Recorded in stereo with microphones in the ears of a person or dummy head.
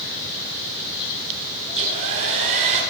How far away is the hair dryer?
About 5 m.